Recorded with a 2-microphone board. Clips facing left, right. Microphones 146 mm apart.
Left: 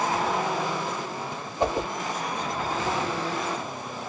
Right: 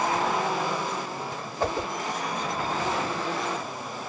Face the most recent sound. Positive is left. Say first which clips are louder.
# left 2 dB
turn(degrees=20)  # may be behind; listen again after turning